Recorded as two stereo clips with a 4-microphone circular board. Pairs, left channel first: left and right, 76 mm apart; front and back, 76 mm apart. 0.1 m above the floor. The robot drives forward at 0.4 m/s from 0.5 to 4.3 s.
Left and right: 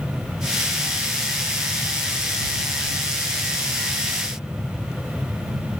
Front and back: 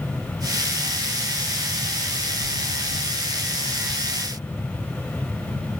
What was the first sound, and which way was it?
Only background noise.